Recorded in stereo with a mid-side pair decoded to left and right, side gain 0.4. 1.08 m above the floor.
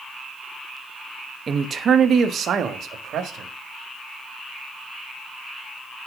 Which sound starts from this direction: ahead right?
A man speaking, at 1.5 s.